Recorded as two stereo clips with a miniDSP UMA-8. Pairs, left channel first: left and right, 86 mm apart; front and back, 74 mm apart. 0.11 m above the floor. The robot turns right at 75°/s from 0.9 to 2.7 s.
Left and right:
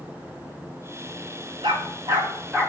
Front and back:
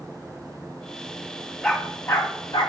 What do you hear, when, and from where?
1.6 s a dog barking: 90° right, 3 m; by 2.7 s 10° right, 3 m